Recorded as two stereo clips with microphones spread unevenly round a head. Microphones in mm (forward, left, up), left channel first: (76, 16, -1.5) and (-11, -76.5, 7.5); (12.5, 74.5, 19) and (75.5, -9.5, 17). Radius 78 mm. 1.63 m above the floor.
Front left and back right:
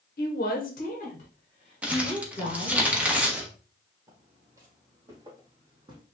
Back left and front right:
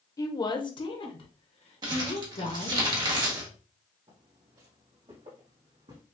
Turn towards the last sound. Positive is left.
turn(degrees=-85)